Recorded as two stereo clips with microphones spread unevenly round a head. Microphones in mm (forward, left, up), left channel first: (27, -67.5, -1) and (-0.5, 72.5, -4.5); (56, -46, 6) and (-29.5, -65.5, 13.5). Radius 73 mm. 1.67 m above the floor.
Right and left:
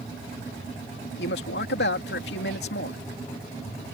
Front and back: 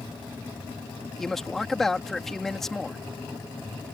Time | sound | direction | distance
1.2 | a man speaking | 75° right | ?